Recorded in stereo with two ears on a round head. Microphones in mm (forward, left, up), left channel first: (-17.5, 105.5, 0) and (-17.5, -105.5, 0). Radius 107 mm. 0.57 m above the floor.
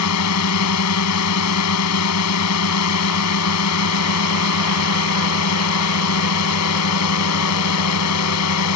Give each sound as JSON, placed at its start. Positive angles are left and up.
{"t": 0.0, "sound": "a drone", "side_deg": 75}